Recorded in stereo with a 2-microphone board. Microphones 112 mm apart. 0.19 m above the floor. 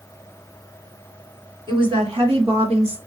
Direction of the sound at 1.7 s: 40° right (ahead or behind).